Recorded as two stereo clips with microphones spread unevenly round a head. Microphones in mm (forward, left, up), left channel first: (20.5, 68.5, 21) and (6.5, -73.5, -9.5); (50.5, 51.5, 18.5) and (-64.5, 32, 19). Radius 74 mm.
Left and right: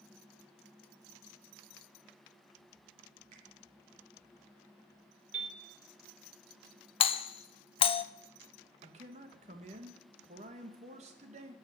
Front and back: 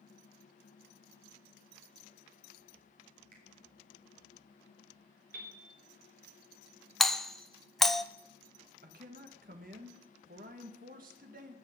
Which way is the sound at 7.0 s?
90° left.